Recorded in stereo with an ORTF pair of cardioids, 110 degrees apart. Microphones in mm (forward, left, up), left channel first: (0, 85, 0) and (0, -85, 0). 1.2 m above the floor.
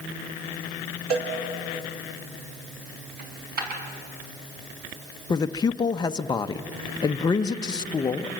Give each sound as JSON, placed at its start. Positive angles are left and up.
{"t": 1.1, "sound": "a cowbell", "azimuth_deg": -60, "distance_m": 4.0}
{"t": 3.2, "sound": "a dropped coin", "azimuth_deg": -65, "distance_m": 5.5}
{"t": 5.3, "sound": "a man speaking", "azimuth_deg": 25, "distance_m": 0.9}